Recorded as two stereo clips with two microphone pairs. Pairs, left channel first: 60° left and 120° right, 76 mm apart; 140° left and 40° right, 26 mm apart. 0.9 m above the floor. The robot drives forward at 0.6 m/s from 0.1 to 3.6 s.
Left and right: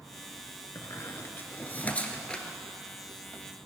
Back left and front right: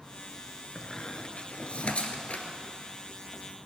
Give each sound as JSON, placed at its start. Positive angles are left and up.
{"t": 0.8, "sound": "a squeak", "azimuth_deg": 95, "distance_m": 1.3}